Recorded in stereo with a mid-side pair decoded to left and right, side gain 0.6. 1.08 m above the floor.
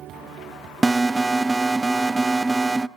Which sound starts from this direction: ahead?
An alarm, at 0.8 s.